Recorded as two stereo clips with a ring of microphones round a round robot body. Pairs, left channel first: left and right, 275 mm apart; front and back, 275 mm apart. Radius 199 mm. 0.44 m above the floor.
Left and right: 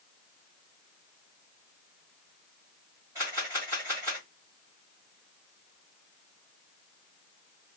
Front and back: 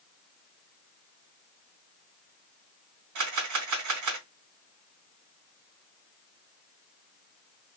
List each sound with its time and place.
3.1 s a camera shutter: 170° right, 1.4 m